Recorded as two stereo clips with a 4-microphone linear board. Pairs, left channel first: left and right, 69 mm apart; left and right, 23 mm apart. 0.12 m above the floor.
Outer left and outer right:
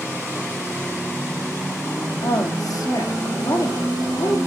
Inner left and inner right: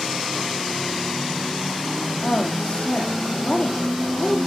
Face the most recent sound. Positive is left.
turn(degrees=55)  # may be behind; listen again after turning